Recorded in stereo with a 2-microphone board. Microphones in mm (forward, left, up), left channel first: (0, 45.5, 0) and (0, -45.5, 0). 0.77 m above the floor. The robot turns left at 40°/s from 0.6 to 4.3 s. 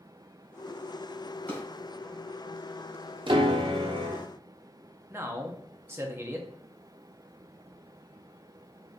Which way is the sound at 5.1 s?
30° right (ahead or behind).